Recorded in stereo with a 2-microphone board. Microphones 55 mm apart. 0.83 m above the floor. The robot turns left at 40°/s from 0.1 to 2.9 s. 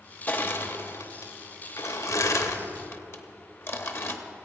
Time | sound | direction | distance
0.3 | crushing | 25° left (ahead or behind) | 0.8 m